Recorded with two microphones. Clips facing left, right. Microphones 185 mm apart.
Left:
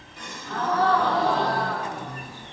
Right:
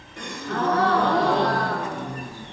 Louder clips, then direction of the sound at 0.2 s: Right 5 dB; 80° right.